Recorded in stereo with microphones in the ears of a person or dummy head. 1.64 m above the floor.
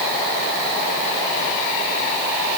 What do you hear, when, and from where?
Only background noise.